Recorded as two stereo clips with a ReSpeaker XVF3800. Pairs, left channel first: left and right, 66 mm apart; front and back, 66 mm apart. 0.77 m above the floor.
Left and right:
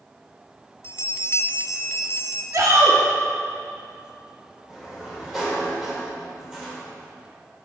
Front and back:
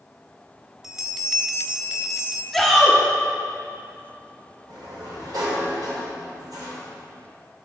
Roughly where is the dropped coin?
I don't hear a dropped coin.